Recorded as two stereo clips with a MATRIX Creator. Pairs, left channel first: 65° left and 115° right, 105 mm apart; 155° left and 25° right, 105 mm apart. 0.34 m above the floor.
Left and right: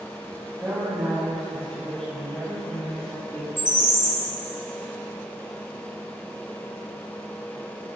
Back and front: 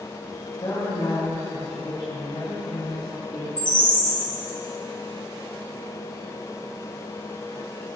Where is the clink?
No clink in this recording.